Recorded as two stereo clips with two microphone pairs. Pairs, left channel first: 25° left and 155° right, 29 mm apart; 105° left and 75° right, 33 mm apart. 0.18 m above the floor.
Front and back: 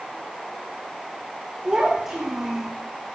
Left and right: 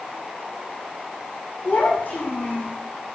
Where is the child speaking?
135° left, 6 m; by 2.7 s 120° left, 5.5 m.